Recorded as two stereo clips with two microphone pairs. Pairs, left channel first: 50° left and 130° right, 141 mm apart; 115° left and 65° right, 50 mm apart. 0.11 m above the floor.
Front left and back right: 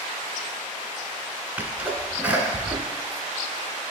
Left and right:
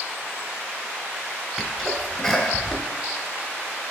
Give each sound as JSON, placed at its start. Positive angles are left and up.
{"t": 1.6, "sound": "a sneeze", "azimuth_deg": -175, "distance_m": 1.1}